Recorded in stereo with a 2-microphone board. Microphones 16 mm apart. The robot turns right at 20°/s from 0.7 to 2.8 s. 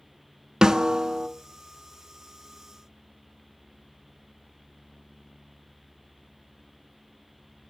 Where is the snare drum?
55° right (ahead or behind), 0.7 m; by 1.3 s 65° right (ahead or behind), 0.7 m.